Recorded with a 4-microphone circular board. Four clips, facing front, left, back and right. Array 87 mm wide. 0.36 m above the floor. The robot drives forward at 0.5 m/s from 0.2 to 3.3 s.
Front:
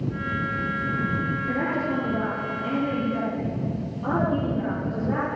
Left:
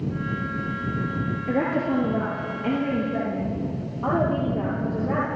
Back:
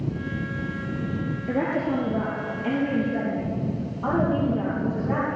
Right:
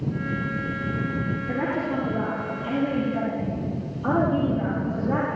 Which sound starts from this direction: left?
A woman speaking, at 1.5 s.